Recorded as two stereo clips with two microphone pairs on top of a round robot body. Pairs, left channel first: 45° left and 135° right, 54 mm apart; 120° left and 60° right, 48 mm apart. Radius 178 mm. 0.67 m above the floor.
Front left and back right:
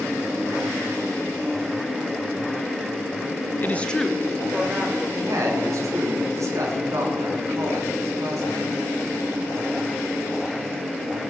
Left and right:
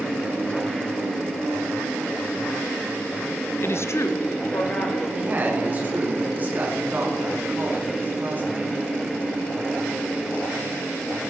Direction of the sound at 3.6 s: 85° left.